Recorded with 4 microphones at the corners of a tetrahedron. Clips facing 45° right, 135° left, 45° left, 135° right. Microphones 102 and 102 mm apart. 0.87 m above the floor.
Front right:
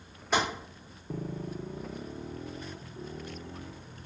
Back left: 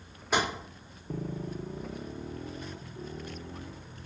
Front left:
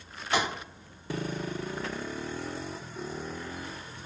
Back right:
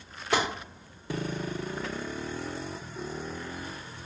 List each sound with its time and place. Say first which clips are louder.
0.3 s tapping: even, back right 1 dB; 140° right, 2 m